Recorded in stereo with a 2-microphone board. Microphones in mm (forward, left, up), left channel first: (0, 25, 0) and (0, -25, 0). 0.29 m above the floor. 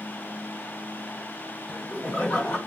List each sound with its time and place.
1.7 s laughter: 25° left (ahead or behind), 1.2 m